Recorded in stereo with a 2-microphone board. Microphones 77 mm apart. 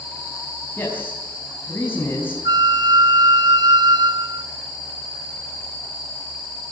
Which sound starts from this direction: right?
A flute, at 2.5 s.